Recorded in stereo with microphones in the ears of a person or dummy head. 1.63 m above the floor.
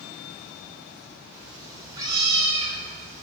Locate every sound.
1.3 s a cat meowing: 10° right (ahead or behind), 2.5 m; by 3.2 s 40° right (ahead or behind), 2 m